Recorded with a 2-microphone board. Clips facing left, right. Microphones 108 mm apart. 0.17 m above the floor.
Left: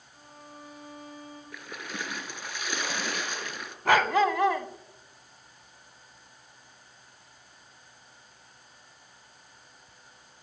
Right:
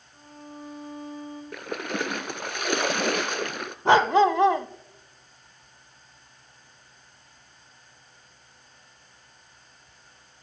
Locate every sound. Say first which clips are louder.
0.1 s a violin: right 6 dB; centre (ahead or behind), 8 m
1.5 s a splash: right 9 dB; 60° right (ahead or behind), 0.8 m
3.9 s a dog barking: right 5 dB; 25° right (ahead or behind), 0.5 m